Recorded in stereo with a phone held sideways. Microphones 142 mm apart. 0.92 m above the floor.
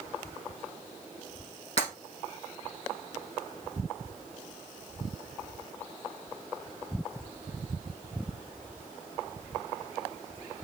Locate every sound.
1.8 s breaking glass: 45° left (ahead or behind), 5.5 m